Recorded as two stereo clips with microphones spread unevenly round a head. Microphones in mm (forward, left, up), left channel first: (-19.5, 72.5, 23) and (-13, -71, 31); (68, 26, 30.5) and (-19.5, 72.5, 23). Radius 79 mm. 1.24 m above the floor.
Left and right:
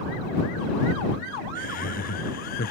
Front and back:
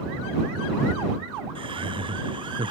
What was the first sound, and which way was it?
Laughter, 120° left.